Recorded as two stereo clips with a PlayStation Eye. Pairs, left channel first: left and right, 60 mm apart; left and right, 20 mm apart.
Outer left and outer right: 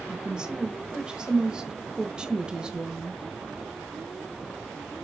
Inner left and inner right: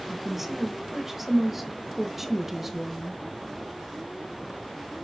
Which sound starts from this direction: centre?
A woman speaking, at 0.1 s.